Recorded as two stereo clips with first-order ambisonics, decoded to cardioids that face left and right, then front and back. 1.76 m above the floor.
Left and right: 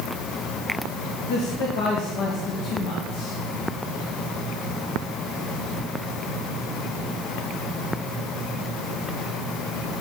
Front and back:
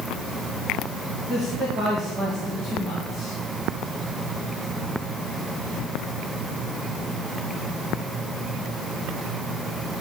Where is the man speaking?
105° left, 1.7 m.